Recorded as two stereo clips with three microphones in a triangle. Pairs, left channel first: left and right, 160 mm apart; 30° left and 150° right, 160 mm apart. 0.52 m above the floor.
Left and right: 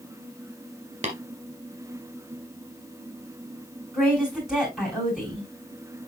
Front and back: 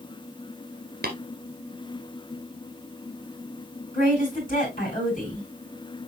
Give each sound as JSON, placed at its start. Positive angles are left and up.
{"t": 1.0, "sound": "tapping", "azimuth_deg": -135, "distance_m": 2.0}
{"t": 3.9, "sound": "a woman speaking", "azimuth_deg": -5, "distance_m": 5.0}